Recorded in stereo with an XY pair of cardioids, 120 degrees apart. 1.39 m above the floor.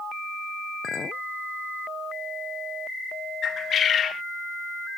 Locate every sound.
0.8 s a clink: 40° left
3.4 s a bird: 45° left